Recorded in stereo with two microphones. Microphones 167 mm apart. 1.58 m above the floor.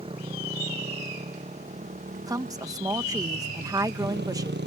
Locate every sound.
0.0 s a motorcycle: 30° right (ahead or behind); by 4.7 s 85° right
2.3 s a woman speaking: 20° right (ahead or behind)